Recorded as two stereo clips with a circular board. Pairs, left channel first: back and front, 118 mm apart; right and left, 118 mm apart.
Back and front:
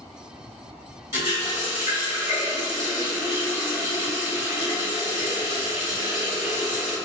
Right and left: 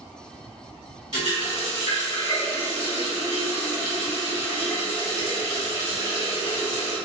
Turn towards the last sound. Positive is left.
turn(degrees=65)